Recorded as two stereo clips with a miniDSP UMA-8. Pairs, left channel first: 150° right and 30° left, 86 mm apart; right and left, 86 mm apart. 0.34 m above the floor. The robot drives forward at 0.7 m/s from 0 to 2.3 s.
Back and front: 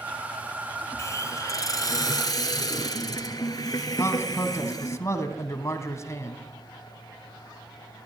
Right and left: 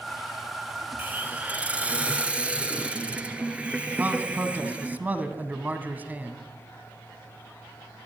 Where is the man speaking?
160° left, 2.5 m.